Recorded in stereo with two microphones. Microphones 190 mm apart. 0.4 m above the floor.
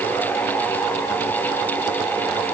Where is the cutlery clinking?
I don't hear cutlery clinking.